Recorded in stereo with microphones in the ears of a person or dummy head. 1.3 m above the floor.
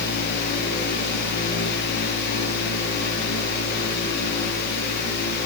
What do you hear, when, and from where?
0.0 s a fan: 70° left (ahead or behind), 9 m